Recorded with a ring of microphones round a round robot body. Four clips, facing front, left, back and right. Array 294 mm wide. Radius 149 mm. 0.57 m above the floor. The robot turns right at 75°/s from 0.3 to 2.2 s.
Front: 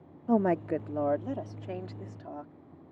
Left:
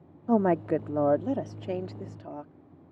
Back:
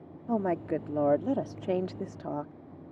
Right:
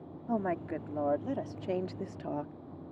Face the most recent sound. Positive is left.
turn(degrees=-155)